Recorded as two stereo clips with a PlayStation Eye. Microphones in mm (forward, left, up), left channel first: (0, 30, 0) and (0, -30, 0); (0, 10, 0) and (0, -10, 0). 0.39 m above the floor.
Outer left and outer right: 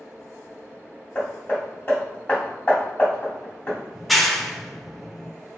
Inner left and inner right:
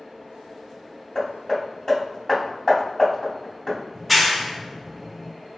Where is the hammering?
35° left (ahead or behind), 1.8 m.